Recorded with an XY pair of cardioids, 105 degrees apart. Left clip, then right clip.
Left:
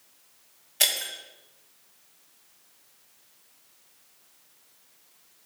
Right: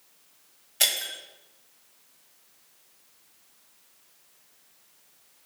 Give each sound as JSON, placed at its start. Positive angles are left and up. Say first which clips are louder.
{"t": 0.8, "sound": "breaking glass", "louder": "even", "azimuth_deg": 10, "distance_m": 1.3}